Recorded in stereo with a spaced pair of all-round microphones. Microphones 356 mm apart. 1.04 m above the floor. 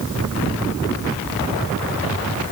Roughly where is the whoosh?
I don't hear a whoosh.